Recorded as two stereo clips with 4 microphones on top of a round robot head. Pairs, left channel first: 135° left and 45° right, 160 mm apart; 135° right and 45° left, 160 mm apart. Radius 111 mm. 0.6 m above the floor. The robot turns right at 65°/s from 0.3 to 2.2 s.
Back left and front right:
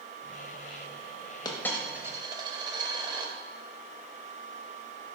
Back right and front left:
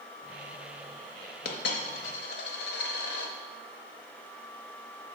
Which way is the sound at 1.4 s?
160° right.